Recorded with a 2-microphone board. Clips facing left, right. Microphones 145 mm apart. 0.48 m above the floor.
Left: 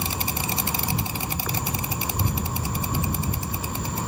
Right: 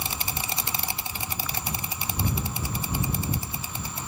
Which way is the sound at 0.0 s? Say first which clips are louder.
Left 5 dB; 75° left (ahead or behind).